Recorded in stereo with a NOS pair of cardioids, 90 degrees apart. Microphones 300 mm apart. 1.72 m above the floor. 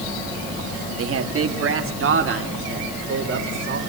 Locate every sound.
1.0 s a man speaking: 50° right, 2.5 m; by 3.8 s 40° right, 5.5 m